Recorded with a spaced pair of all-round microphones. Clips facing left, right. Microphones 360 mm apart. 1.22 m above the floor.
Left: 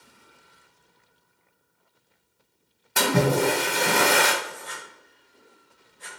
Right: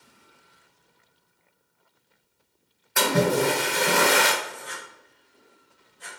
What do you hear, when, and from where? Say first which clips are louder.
3.0 s a splash: even; 45° left (ahead or behind), 1.2 m
4.4 s writing: even; 5° left (ahead or behind), 2 m